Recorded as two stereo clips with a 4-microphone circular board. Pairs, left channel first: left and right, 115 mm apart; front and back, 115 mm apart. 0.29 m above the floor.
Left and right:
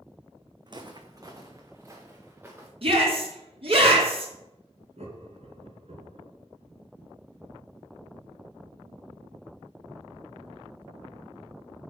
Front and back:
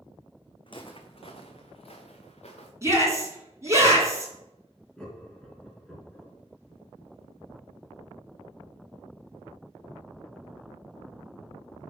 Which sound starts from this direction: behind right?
A shout, at 2.8 s.